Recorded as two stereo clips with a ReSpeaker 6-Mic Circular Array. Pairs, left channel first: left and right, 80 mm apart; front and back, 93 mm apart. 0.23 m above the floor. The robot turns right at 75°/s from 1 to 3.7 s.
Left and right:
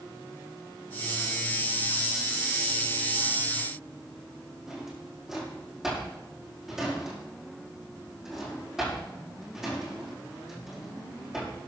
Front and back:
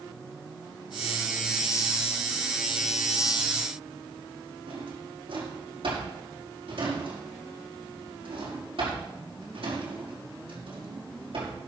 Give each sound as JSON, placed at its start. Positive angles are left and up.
{"t": 4.7, "sound": "a drawer", "azimuth_deg": -175, "distance_m": 6.5}